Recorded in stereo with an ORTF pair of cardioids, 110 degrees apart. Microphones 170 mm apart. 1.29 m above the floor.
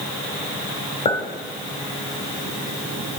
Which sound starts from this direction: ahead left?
A clink, at 1.1 s.